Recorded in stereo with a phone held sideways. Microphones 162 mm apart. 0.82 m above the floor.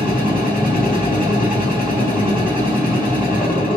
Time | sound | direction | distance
0.0 | a machine running | 60° left (ahead or behind) | 1.9 m